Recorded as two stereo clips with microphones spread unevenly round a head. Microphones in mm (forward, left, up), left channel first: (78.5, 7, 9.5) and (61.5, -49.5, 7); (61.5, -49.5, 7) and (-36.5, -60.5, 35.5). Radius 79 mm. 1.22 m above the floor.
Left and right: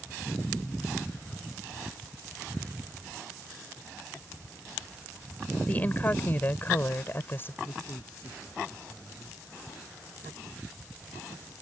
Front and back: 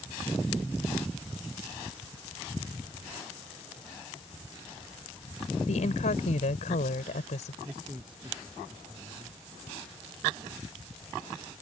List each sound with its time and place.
5.7 s a woman speaking: 10° left; by 7.5 s 25° left
7.6 s a man speaking: 125° left